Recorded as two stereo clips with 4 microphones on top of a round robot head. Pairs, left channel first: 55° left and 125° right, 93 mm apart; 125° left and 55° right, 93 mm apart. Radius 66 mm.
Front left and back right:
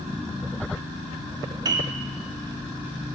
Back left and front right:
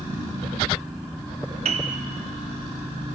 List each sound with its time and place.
1.6 s a piano: 75° right, 0.6 m